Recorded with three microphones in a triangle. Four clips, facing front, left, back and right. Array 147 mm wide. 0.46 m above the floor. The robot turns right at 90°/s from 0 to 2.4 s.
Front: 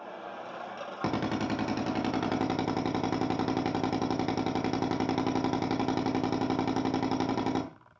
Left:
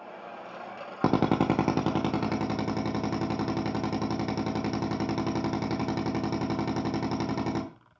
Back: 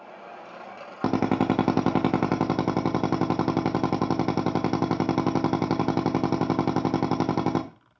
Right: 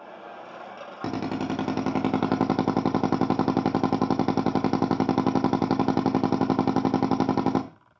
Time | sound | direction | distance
1.0 | a drill | 115° left | 0.8 m